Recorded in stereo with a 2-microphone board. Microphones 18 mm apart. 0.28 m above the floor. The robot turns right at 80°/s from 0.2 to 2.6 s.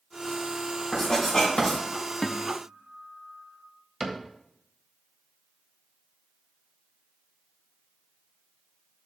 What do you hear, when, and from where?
0.9 s writing: 60° left (ahead or behind), 5 m; by 1.8 s 40° left (ahead or behind), 5 m
2.2 s a guitar: 150° left, 0.5 m; by 3.7 s straight behind, 0.5 m
4.0 s a cupboard door: 20° right (ahead or behind), 1.2 m